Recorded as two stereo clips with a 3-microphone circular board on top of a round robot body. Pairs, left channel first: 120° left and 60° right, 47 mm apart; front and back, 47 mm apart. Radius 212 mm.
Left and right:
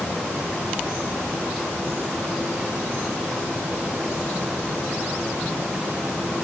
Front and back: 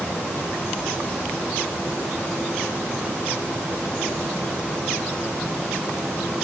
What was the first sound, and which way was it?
Only background noise.